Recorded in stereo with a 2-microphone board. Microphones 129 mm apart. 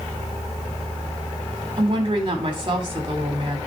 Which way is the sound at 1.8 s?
40° right (ahead or behind).